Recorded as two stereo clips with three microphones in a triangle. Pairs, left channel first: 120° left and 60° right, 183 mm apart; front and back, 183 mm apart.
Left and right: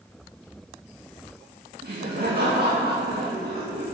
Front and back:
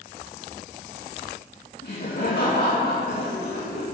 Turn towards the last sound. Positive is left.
turn(degrees=-30)